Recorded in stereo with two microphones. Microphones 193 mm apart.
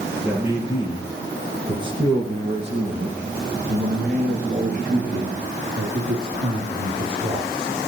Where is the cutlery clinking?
No cutlery clinking in this recording.